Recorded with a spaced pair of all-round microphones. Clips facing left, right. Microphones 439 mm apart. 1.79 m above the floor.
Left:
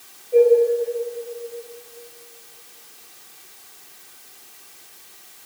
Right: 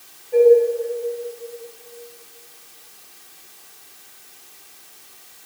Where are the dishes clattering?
5° right (ahead or behind), 9 m.